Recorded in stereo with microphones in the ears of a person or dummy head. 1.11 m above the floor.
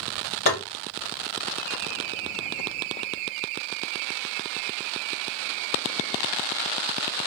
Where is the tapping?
60° left (ahead or behind), 1.6 m.